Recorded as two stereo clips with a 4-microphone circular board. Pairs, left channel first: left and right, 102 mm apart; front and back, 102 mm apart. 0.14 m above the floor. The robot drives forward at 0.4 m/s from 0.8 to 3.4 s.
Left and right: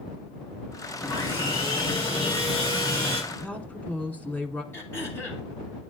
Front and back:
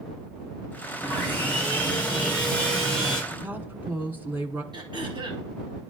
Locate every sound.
1.0 s sawing: 70° left, 4 m; by 3.2 s 85° left, 4 m
3.3 s a woman speaking: 140° left, 1.1 m; by 4.6 s 145° left, 1.1 m
4.7 s throat clearing: 150° left, 2.5 m